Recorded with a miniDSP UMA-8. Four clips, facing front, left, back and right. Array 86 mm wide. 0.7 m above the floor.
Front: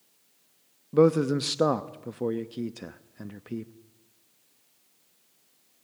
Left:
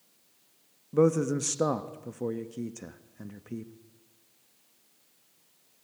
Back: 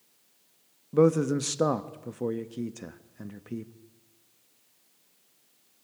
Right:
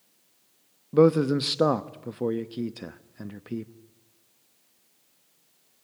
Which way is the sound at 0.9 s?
65° right.